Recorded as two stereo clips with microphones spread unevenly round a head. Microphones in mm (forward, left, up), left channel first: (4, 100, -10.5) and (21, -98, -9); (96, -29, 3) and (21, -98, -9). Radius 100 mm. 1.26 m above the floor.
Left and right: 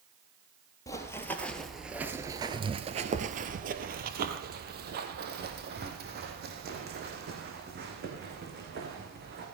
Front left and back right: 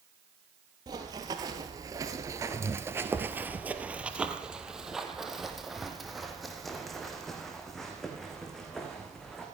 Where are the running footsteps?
165° left, 1.7 m; by 9.4 s 40° right, 6 m.